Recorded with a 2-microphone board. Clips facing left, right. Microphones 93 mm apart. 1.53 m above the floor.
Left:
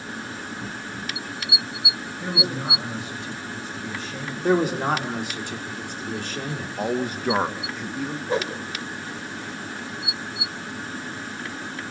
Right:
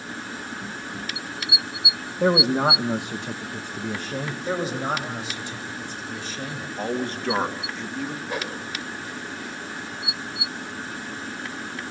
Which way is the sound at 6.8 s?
10° left (ahead or behind).